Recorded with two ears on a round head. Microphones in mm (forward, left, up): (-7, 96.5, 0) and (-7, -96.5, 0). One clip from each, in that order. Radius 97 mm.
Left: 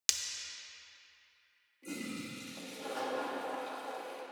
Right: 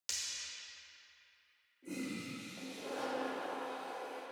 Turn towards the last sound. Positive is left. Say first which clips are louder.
# left 1 dB
turn(degrees=70)  # may be behind; listen again after turning